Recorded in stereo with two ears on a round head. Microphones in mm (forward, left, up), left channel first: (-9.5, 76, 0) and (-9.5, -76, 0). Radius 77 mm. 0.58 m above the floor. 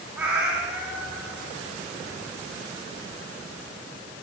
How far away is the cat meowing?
About 3 m.